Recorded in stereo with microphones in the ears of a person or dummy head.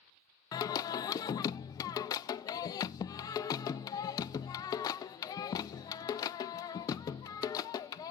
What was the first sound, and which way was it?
Singing, 25° left (ahead or behind).